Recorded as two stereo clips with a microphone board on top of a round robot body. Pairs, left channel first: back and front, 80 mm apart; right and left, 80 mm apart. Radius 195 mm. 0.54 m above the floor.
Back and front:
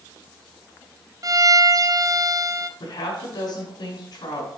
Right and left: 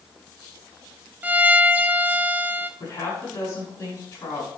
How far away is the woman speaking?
About 6.5 m.